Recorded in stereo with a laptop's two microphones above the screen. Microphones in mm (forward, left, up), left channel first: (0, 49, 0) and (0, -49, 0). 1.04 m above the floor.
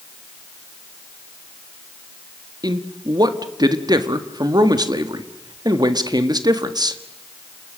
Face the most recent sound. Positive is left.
turn(degrees=-40)  # may be behind; listen again after turning